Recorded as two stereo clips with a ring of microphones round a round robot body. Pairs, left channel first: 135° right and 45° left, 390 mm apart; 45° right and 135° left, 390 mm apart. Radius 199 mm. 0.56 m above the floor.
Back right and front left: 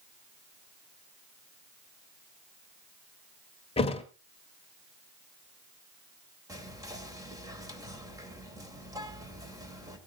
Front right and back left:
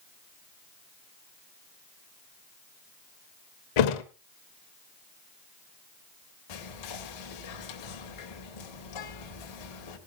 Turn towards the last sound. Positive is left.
turn(degrees=-35)